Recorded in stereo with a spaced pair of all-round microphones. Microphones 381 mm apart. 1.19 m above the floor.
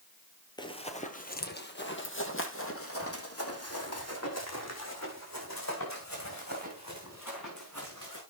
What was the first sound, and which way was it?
Running footsteps, 10° left (ahead or behind).